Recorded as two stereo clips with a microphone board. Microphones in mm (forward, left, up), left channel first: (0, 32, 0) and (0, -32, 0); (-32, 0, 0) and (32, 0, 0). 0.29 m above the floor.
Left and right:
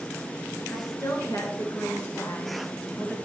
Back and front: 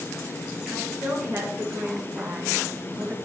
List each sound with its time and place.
0.7 s a woman speaking: 55° left, 4.5 m; by 3.1 s 25° left, 2 m